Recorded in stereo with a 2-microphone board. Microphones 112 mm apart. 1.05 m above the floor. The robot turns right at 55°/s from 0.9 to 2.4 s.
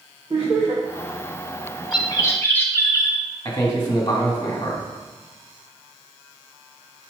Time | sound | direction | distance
0.3 | laughter | 40° right (ahead or behind) | 1.6 m
1.9 | a bird | 45° left (ahead or behind) | 1.2 m
3.5 | a man speaking | 30° left (ahead or behind) | 2.0 m